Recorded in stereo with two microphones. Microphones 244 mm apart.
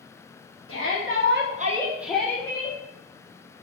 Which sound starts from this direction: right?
A shout, at 0.7 s.